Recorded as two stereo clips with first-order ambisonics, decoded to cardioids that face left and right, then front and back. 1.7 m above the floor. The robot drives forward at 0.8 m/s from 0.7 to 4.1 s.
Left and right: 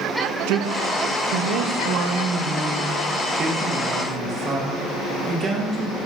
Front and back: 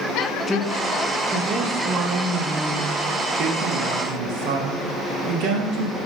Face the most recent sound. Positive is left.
turn(degrees=-155)